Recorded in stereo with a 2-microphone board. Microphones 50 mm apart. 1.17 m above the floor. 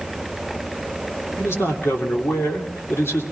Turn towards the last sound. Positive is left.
turn(degrees=55)  # may be behind; listen again after turning